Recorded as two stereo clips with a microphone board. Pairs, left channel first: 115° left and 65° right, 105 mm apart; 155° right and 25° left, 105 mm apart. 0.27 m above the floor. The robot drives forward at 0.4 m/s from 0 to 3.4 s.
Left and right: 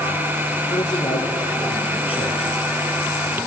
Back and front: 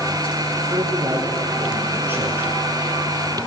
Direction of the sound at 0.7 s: 85° left.